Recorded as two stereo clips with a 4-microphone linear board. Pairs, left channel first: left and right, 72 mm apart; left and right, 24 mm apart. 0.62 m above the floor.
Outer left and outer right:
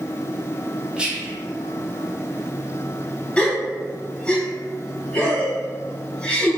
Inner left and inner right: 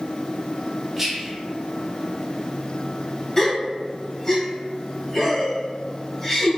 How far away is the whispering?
About 0.6 m.